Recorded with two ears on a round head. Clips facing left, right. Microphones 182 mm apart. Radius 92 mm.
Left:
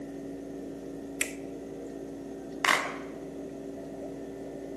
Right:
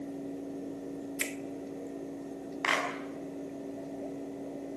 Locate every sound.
1.2 s a finger snap: centre (ahead or behind), 0.9 m
2.6 s a clap: 55° left (ahead or behind), 6.5 m